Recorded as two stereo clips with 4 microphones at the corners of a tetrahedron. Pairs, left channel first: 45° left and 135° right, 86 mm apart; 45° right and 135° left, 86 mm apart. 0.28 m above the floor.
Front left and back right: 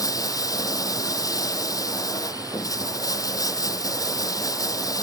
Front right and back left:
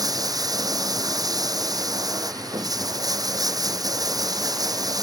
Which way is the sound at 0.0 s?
90° left.